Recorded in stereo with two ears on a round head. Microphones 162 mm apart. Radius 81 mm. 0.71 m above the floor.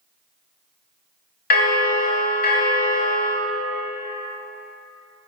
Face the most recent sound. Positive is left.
turn(degrees=50)  # may be behind; listen again after turning